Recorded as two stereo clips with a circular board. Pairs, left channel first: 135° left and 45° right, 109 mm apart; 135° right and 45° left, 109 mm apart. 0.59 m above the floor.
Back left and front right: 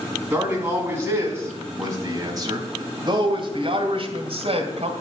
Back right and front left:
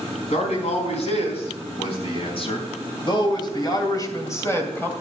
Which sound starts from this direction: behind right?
A man speaking, at 0.3 s.